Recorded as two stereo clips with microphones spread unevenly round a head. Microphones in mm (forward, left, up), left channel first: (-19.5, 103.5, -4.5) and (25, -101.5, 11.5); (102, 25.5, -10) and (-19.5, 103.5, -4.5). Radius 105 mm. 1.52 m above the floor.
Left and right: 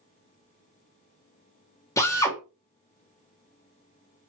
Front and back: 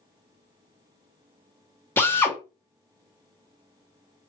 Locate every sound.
2.0 s a drill: 35° left, 1.0 m